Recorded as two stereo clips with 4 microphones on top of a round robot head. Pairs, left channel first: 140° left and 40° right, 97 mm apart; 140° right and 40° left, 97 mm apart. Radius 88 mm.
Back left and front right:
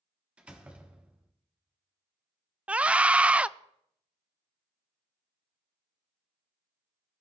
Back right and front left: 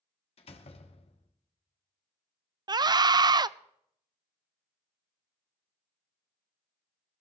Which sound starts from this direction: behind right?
A door slam, at 0.4 s.